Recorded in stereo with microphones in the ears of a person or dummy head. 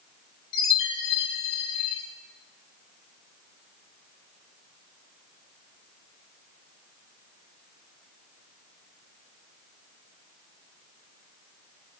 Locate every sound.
0.5 s a chime: 35° left (ahead or behind), 3.5 m